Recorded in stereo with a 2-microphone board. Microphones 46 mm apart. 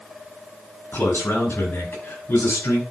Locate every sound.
0.9 s a man speaking: 55° left (ahead or behind), 5.5 m; by 2.8 s 65° left (ahead or behind), 6 m